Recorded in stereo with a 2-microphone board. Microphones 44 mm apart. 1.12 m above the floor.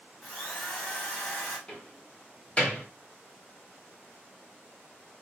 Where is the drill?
25° left (ahead or behind), 1.8 m.